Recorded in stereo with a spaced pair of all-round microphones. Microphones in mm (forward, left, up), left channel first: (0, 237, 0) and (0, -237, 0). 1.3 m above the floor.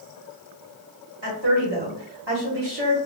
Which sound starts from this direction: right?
A woman speaking, at 1.2 s.